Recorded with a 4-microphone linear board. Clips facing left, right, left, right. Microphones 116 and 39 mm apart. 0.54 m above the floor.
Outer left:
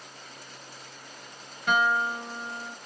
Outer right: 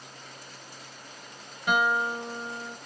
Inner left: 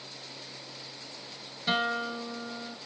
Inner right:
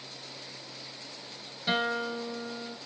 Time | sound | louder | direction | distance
1.7 | a guitar | even, even | 10° right (ahead or behind) | 1.4 m